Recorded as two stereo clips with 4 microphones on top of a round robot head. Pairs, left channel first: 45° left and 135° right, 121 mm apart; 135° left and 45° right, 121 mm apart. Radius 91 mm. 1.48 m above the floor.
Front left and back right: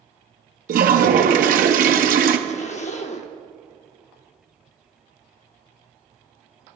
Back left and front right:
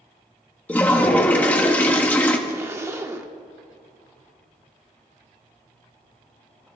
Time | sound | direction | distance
0.7 | a toilet flushing | 145° right | 0.8 m
2.5 | a zipper | 25° left | 0.8 m